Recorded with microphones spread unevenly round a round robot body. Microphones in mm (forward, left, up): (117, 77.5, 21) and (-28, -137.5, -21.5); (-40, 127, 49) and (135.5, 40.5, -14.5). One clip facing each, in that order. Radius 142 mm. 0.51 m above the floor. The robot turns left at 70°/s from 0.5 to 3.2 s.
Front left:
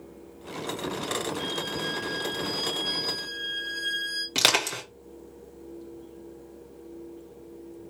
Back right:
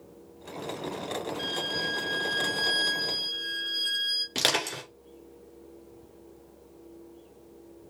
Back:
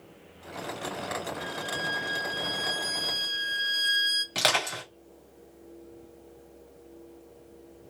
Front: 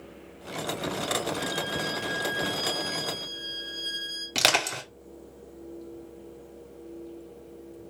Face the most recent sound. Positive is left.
turn(degrees=-15)